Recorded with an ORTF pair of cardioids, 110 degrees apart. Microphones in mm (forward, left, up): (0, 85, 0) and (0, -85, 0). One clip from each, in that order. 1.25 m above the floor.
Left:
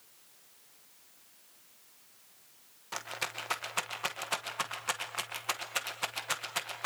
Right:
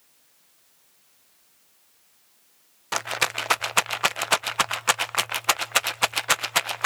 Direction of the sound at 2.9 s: 60° right.